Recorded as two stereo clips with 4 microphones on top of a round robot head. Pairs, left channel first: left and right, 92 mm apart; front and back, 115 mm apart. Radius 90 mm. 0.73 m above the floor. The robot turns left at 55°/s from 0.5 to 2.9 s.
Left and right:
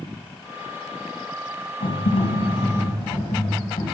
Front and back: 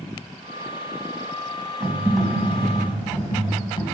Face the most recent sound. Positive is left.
turn(degrees=50)